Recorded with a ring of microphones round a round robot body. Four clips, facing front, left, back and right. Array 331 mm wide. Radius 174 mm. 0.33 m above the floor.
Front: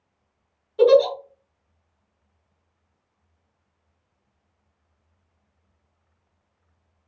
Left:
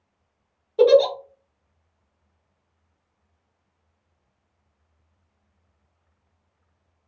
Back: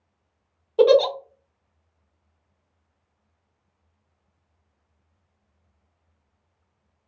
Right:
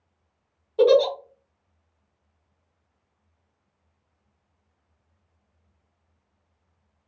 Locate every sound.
0.8 s a giggle: 175° left, 0.8 m